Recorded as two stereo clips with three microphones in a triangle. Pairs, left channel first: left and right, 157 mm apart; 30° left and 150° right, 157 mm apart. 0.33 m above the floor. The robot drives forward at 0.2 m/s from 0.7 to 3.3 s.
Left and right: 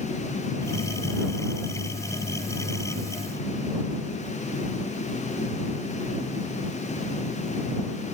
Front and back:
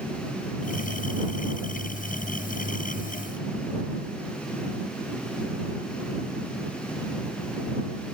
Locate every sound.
Only background noise.